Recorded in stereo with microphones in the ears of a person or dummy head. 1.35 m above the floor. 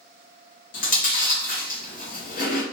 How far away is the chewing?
About 0.7 m.